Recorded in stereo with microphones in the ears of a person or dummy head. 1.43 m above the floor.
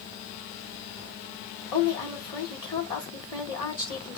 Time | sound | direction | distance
1.7 | a woman speaking | 20° left (ahead or behind) | 2 m